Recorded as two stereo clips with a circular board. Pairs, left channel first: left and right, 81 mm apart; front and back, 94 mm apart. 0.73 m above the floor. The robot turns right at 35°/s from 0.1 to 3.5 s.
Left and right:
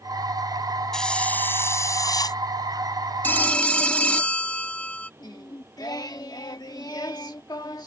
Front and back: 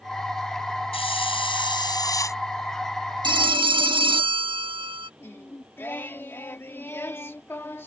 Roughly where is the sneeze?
I don't hear a sneeze.